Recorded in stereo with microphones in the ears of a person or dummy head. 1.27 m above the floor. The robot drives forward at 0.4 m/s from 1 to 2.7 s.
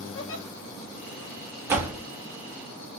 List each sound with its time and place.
0.1 s a giggle: 70° left (ahead or behind), 1.0 m
1.7 s a door slam: 15° right (ahead or behind), 0.6 m